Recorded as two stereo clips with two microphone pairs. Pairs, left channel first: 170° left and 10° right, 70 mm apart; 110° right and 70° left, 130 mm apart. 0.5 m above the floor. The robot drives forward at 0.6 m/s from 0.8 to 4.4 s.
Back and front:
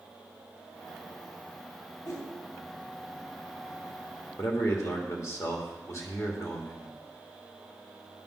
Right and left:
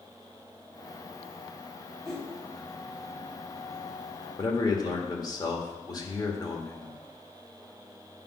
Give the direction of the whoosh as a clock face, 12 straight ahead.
7 o'clock.